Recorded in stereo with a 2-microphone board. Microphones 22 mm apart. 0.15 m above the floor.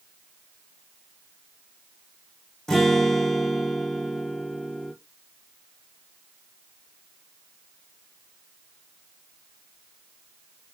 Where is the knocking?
No knocking in this recording.